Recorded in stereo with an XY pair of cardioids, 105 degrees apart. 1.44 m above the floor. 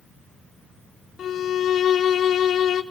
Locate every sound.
1.2 s a violin: 60° left, 1.1 m